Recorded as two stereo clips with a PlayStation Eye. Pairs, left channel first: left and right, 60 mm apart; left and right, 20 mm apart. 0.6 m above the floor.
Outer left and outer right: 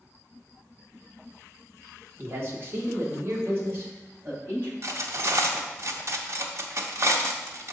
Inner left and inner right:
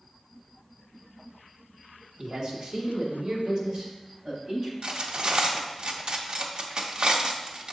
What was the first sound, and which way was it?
A man speaking, 40° right (ahead or behind).